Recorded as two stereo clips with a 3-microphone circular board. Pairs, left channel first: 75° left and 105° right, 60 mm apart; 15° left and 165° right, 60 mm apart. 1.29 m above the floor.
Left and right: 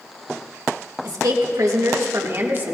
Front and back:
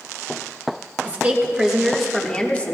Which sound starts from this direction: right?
A woman speaking, at 1.0 s.